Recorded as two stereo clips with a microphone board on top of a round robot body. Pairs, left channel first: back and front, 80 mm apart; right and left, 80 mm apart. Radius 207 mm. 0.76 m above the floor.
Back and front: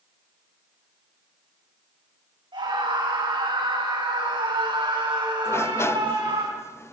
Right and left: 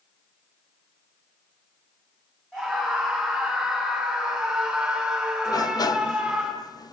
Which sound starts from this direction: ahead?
A scream, at 2.5 s.